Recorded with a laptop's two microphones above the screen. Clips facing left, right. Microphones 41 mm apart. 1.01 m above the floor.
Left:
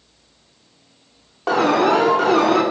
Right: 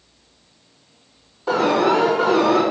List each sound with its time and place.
1.5 s an alarm: 60° left (ahead or behind), 5 m